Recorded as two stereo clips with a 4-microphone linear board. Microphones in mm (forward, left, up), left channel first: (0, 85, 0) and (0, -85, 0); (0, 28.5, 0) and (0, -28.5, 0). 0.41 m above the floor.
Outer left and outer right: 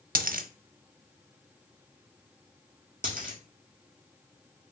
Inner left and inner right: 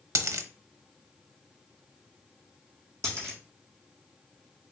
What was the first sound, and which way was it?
A dropped coin, 60° right (ahead or behind).